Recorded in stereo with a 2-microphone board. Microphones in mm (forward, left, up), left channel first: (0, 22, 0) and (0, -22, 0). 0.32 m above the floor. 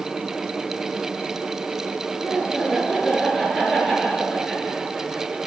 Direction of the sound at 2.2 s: 5° left (ahead or behind).